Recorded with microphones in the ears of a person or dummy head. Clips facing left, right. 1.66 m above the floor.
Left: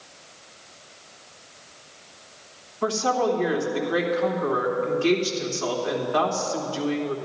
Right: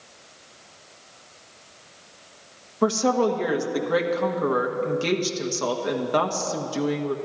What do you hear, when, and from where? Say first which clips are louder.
2.8 s a woman speaking: right 3 dB; 70° right (ahead or behind), 1.4 m